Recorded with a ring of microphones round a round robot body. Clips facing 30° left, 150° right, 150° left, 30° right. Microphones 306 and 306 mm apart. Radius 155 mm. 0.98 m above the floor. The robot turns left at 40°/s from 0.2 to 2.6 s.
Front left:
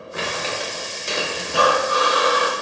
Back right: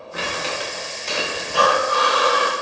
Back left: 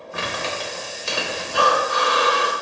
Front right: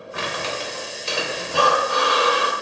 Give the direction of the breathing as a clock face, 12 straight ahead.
12 o'clock.